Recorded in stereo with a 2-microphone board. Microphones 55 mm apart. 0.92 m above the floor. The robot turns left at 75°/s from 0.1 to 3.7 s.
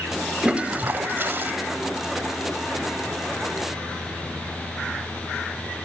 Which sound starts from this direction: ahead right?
A toilet flushing, at 0.4 s.